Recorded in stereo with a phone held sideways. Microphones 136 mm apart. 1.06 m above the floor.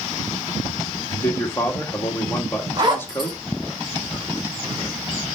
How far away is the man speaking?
About 1.7 m.